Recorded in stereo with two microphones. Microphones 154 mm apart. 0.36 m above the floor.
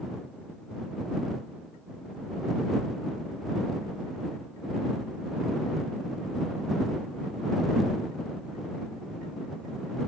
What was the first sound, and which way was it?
Only background noise.